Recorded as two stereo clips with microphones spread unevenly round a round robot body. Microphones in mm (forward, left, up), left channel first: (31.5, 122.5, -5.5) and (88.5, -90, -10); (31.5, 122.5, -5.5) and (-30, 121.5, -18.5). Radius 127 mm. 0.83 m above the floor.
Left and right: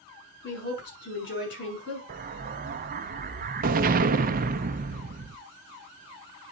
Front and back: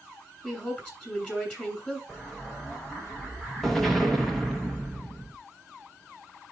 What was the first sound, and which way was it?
A woman speaking, 70° left.